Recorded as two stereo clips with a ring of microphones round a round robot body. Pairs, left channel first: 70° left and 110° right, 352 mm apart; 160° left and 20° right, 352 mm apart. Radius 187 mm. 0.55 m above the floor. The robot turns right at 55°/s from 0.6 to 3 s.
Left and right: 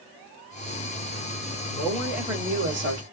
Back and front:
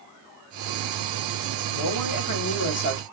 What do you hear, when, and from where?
1.7 s a woman speaking: 135° left, 1.3 m; by 3.0 s 150° right, 1.3 m